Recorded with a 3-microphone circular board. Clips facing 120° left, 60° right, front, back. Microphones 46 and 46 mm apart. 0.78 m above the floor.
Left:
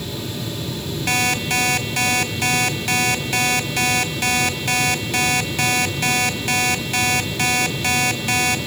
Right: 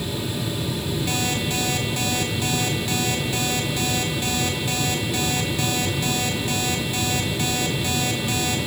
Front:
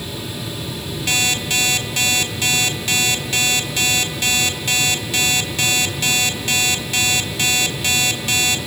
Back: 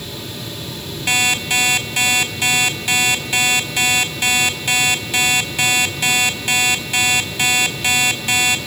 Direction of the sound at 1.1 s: 105° left.